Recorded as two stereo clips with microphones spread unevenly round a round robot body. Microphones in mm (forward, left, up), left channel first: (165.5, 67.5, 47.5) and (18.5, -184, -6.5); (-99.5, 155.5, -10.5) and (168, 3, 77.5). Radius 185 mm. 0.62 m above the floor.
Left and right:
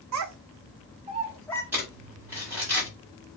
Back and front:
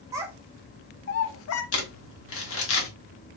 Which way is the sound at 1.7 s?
165° left.